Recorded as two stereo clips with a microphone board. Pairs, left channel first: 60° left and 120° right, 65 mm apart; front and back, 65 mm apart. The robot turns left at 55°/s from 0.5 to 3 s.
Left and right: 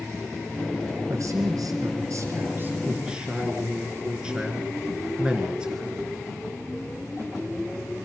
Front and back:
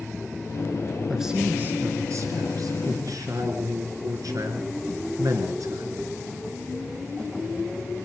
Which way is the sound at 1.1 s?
90° right.